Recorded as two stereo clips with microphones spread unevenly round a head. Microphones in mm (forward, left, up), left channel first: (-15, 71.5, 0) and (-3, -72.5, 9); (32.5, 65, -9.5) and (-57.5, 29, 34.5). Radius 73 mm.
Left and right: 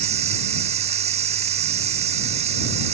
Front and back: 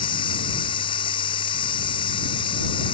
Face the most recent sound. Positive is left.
turn(degrees=-35)